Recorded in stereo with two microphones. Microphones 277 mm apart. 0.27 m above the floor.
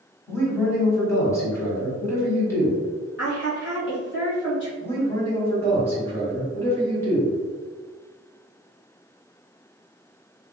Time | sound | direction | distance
0.3 | a man speaking | 10° left (ahead or behind) | 1.5 m
3.2 | a woman speaking | 45° left (ahead or behind) | 1.4 m
4.8 | a man speaking | 10° left (ahead or behind) | 2.0 m